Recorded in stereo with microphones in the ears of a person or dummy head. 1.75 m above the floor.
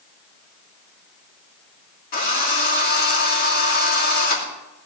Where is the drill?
40° left (ahead or behind), 2.5 m.